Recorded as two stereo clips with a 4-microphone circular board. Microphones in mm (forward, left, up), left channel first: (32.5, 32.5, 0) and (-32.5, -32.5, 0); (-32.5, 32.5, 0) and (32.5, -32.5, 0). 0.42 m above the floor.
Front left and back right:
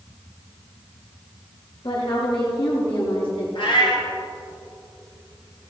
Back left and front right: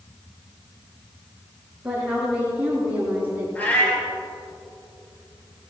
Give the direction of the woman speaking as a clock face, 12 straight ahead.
11 o'clock.